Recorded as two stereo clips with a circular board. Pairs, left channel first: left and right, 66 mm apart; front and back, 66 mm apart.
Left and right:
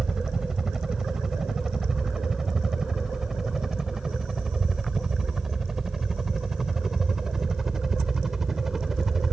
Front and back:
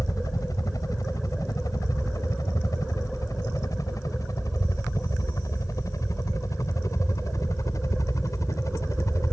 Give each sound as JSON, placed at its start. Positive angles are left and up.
{"t": 0.0, "sound": "a helicopter", "azimuth_deg": -10}